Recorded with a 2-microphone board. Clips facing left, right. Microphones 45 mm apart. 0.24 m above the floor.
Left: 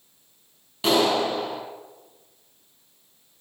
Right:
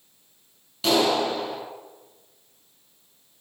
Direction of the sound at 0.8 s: 15° left (ahead or behind).